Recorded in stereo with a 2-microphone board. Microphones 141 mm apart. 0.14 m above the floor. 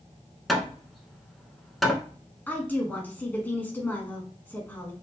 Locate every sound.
0.5 s hammering: centre (ahead or behind), 0.7 m
2.5 s a woman speaking: 15° left (ahead or behind), 1.0 m